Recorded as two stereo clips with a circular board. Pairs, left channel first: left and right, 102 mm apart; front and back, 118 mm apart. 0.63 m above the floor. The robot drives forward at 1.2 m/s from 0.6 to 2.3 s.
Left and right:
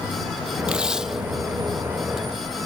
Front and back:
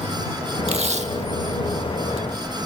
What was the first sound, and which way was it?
Tape being pulled, 170° right.